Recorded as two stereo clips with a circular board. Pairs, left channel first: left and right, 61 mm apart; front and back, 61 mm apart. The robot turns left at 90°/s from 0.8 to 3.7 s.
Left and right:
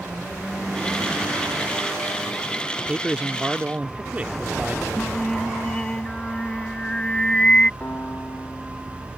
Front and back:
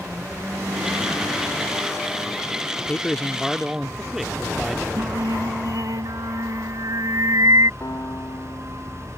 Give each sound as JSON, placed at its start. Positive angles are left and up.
{"t": 2.8, "sound": "a man speaking", "azimuth_deg": -15}
{"t": 5.0, "sound": "singing", "azimuth_deg": 165}
{"t": 7.8, "sound": "a piano", "azimuth_deg": 35}